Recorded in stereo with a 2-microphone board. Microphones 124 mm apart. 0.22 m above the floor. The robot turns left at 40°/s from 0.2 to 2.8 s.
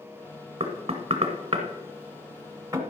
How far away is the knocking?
About 1.3 m.